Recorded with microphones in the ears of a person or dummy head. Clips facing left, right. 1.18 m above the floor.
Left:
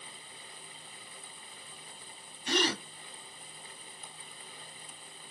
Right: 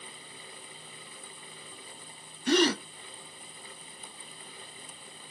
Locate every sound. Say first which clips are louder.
2.5 s a gasp: right 7 dB; 45° right (ahead or behind), 1.6 m